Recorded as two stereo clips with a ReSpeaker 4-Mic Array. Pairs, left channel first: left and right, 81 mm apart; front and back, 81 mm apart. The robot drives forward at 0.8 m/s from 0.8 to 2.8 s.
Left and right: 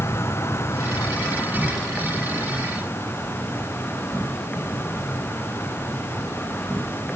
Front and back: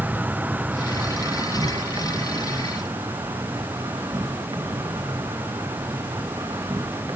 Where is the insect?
120° left, 0.9 m; by 7.2 s 165° left, 2 m.